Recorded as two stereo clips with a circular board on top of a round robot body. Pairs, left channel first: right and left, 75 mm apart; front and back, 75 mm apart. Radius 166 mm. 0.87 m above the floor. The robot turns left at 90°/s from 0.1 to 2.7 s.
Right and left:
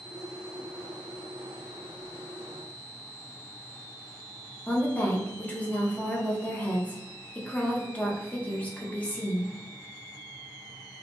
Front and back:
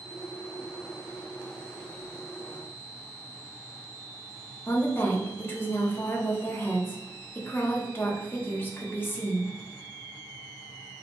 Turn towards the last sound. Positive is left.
turn(degrees=-35)